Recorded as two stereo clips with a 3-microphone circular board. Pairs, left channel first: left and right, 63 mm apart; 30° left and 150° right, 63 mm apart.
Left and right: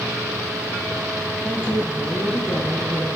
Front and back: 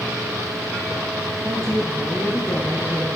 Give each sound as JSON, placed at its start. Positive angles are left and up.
{"t": 1.4, "sound": "a woman speaking", "azimuth_deg": 115, "distance_m": 3.0}